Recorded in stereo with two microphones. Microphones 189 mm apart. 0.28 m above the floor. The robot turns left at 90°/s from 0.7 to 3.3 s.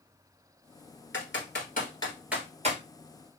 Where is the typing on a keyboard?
80° left, 1.6 m; by 2.8 s 45° right (ahead or behind), 1.6 m.